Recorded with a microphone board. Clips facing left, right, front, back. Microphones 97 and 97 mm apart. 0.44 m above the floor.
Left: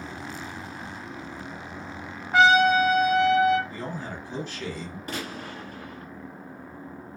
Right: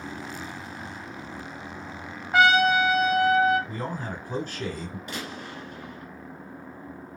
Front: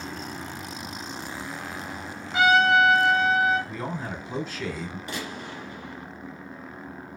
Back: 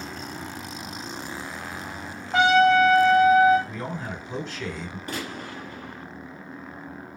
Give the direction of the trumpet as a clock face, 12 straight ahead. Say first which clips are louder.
Left 1 dB, back 2 dB; 6 o'clock.